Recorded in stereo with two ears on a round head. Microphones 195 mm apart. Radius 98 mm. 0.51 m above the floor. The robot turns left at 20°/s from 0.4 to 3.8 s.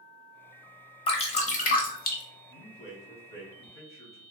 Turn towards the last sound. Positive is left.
turn(degrees=15)  # may be behind; listen again after turning